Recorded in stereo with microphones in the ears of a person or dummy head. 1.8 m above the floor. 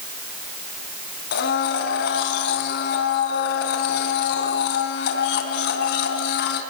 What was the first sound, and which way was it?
A blender, 65° left (ahead or behind).